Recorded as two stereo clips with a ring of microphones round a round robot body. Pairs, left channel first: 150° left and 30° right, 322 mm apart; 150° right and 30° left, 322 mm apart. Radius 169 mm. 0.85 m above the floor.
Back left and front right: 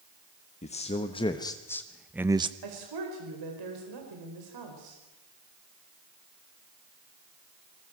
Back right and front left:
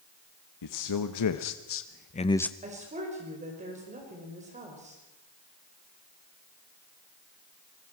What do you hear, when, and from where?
0.6 s a man speaking: 140° right, 1.4 m; by 2.5 s 65° right, 0.7 m
2.6 s a woman speaking: 40° right, 4.5 m